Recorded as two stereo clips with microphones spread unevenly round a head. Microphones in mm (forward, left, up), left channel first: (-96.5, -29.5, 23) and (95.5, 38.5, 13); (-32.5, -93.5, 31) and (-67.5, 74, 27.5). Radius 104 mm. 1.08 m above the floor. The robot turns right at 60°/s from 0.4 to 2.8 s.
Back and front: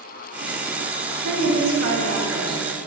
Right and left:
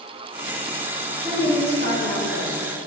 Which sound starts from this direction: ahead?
A woman speaking, at 1.2 s.